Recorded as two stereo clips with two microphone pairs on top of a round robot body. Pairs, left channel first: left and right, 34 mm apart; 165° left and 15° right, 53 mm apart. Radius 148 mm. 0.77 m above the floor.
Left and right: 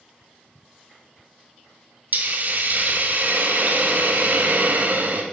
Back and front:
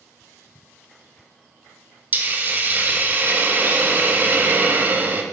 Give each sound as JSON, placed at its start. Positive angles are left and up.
{"t": 2.1, "sound": "a hiss", "azimuth_deg": -60, "distance_m": 1.8}